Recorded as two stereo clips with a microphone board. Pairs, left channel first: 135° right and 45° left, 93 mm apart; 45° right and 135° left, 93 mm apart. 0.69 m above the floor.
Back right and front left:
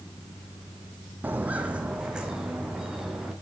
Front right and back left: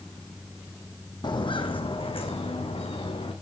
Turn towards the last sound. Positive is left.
turn(degrees=-45)